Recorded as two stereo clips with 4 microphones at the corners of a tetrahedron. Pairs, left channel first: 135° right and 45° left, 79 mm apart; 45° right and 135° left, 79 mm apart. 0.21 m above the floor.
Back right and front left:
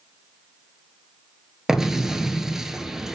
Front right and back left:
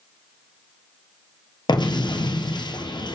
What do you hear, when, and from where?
1.7 s an explosion: 40° right, 1.1 m